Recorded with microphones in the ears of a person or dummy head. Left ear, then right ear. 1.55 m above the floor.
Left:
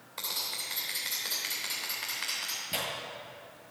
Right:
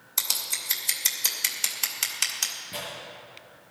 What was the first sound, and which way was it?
Scissors, 85° right.